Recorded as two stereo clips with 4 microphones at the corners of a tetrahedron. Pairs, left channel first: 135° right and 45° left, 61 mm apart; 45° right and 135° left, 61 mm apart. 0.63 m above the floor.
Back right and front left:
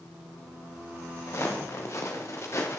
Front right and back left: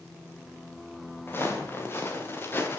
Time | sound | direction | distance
1.3 | footsteps | 95° right | 6.5 m